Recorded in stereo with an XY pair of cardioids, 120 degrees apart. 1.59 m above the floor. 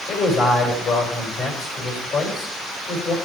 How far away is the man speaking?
About 4 m.